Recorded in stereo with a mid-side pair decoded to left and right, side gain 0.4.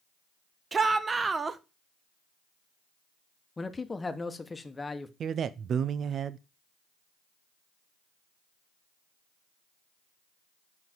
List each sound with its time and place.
0.7 s a shout: 35° right, 1.1 m
3.6 s a man speaking: 25° left, 1.2 m
5.2 s a man speaking: 60° right, 0.5 m